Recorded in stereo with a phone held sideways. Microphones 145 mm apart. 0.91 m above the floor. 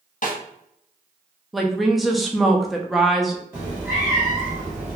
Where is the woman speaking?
Centre (ahead or behind), 0.5 m.